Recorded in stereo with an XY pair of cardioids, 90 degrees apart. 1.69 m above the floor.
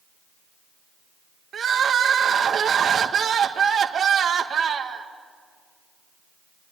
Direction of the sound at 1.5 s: 55° right.